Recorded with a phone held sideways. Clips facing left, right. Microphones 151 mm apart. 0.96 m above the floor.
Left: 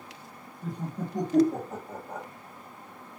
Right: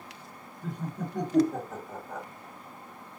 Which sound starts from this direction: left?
Laughter, at 0.6 s.